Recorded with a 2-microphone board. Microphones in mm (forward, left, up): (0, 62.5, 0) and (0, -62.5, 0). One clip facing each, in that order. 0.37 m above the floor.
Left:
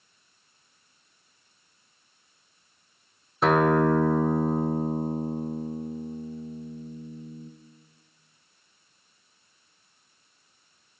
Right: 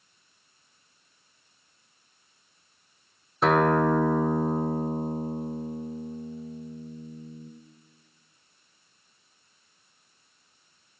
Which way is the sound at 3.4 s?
Centre (ahead or behind).